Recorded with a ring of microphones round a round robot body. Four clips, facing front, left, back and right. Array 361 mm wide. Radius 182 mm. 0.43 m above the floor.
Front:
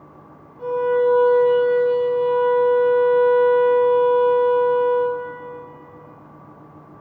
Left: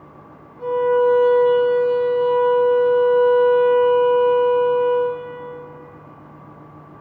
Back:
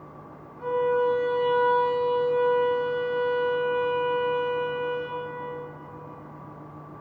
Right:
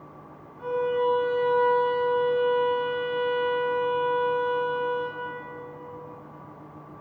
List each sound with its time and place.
0.6 s a violin: 40° left, 1.2 m